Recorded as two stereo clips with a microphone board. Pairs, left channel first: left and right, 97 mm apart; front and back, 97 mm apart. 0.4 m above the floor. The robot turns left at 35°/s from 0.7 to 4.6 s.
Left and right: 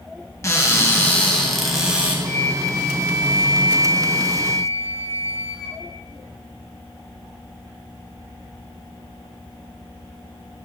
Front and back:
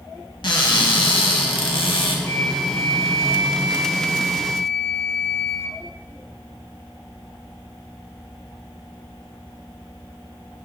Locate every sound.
0.4 s a cupboard door: 35° left, 1.3 m; by 2.1 s 20° right, 1.3 m
2.2 s a flute: 45° left, 1.6 m; by 5.8 s 40° right, 1.6 m